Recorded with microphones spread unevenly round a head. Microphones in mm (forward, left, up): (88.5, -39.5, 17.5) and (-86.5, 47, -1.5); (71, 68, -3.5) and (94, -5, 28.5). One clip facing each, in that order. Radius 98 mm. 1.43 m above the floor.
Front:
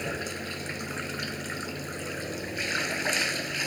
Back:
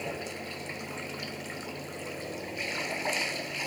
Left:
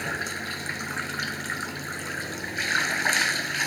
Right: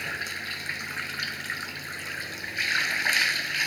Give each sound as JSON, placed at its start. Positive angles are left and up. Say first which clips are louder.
{"t": 0.0, "sound": "running water", "louder": "front 2 dB, left 3 dB", "azimuth_deg": 45}